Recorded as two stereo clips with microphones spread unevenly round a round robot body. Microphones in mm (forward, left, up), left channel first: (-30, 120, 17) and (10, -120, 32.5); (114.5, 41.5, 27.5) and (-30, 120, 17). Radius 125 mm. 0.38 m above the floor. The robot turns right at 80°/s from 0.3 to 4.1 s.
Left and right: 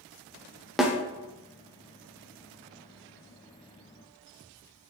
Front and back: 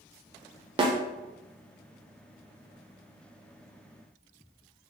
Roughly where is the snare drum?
Behind.